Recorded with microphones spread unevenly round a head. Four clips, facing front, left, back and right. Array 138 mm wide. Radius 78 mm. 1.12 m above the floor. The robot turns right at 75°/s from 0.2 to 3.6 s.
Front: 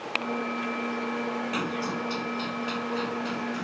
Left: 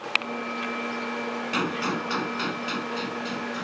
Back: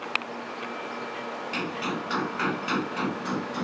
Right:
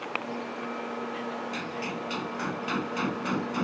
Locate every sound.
1.5 s a gunshot: 95° left; by 3.6 s 110° right